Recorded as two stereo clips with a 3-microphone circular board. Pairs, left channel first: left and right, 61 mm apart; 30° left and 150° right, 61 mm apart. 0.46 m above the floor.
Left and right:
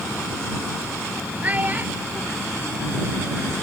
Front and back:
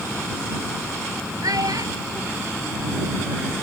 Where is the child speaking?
155° right; by 3.5 s 140° right.